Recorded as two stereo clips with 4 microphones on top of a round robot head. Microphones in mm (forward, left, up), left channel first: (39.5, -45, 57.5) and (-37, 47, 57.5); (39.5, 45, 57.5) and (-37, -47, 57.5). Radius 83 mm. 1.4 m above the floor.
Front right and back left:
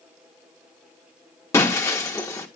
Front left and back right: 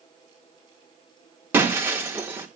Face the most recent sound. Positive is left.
turn(degrees=-80)